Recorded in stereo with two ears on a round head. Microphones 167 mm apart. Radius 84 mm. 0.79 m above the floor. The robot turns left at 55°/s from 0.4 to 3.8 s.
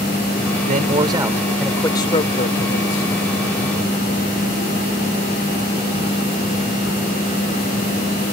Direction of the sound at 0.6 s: 130° right.